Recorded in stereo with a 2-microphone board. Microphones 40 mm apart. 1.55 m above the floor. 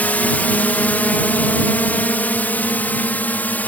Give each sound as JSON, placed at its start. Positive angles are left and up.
{"t": 0.0, "sound": "a drone", "side_deg": 45}